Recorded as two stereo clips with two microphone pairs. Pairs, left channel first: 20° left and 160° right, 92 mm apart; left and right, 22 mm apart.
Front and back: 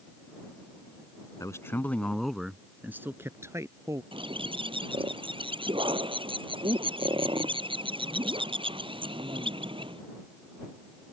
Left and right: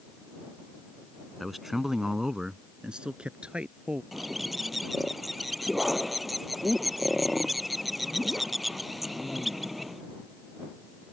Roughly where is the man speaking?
Ahead.